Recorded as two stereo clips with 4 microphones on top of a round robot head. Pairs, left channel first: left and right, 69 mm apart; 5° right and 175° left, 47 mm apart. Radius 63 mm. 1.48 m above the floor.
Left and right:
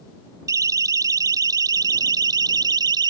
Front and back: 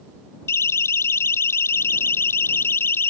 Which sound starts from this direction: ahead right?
A siren, at 0.5 s.